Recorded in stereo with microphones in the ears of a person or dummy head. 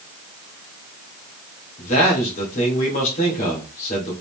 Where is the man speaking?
45° left (ahead or behind), 1.7 m.